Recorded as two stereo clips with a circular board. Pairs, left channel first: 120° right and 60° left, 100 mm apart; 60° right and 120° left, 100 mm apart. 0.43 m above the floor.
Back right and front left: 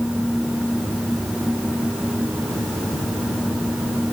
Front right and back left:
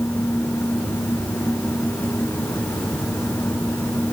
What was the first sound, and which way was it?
Only background noise.